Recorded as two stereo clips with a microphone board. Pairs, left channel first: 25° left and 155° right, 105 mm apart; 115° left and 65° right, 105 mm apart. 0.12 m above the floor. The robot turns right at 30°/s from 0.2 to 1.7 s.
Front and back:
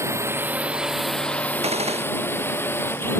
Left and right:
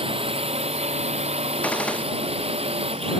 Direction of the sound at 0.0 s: 95° right.